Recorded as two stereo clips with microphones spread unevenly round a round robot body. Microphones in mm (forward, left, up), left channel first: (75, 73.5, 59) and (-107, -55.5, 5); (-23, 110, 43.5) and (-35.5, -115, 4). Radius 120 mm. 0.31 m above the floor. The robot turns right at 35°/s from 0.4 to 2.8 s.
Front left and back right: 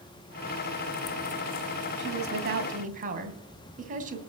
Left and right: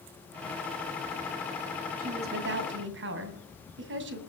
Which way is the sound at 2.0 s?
130° right.